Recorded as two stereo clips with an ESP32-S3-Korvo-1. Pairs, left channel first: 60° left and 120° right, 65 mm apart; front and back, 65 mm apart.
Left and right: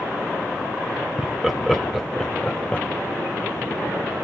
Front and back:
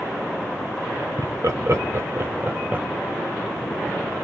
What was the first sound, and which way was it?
Laughter, 160° left.